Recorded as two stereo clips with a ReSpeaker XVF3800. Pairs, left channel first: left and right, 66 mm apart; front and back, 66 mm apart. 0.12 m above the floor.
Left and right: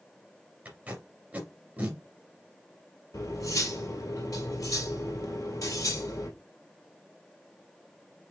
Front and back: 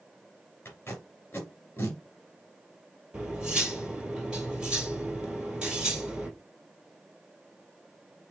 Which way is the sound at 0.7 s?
35° right.